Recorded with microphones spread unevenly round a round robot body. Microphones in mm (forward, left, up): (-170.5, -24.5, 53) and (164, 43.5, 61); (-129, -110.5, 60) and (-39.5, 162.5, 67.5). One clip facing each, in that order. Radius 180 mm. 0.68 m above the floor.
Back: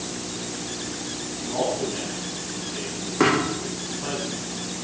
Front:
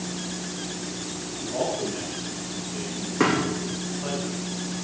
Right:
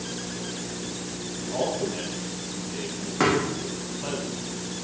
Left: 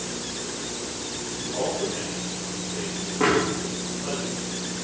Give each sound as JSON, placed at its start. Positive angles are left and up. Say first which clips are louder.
{"t": 1.4, "sound": "a man speaking", "louder": "back 2 dB, even", "azimuth_deg": -90, "distance_m": 6.5}
{"t": 3.2, "sound": "a thud", "louder": "back 2 dB, left 1 dB", "azimuth_deg": -80, "distance_m": 5.0}